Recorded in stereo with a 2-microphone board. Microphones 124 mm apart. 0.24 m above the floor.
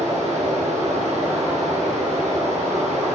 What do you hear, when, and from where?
0.0 s running water: 70° right (ahead or behind), 2 m